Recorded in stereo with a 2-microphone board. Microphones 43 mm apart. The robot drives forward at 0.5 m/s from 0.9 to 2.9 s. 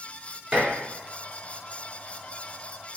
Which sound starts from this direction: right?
Dishes clattering, at 0.5 s.